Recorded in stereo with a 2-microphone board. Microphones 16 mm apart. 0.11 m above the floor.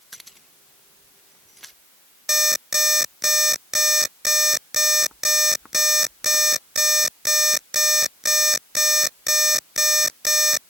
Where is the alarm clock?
15° right (ahead or behind).